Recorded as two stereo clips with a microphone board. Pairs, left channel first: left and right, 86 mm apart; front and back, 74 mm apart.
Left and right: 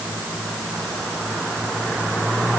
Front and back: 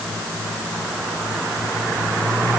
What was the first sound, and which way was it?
Only background noise.